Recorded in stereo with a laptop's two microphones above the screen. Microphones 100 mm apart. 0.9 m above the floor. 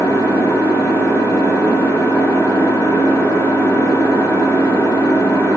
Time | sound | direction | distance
0.0 | an engine running | 25° left (ahead or behind) | 1.6 m